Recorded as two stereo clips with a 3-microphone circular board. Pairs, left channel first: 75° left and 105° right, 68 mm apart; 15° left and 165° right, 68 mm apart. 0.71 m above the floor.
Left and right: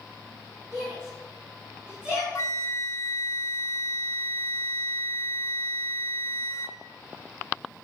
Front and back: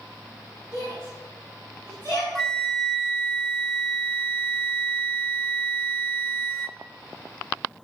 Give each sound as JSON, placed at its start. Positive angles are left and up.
{"t": 0.7, "sound": "a shout", "azimuth_deg": -30, "distance_m": 7.0}
{"t": 2.4, "sound": "a flute", "azimuth_deg": 95, "distance_m": 0.8}